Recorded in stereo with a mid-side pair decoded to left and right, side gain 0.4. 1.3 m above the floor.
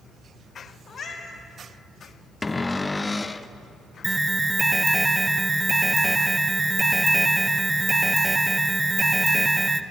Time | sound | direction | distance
0.9 | a cat meowing | 65° left | 2.5 m
2.4 | a cupboard door | 25° left | 0.6 m
4.0 | an alarm | 15° right | 0.6 m